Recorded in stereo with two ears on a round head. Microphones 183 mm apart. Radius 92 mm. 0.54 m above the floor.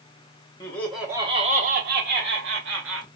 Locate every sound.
0.6 s laughter: 20° left (ahead or behind), 0.8 m; by 3.1 s 70° right (ahead or behind), 1.8 m